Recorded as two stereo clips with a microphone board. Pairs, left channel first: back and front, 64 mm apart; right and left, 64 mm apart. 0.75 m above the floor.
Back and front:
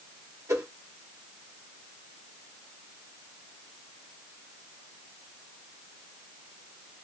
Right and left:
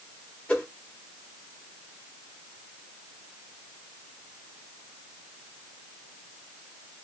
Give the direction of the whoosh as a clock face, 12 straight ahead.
1 o'clock.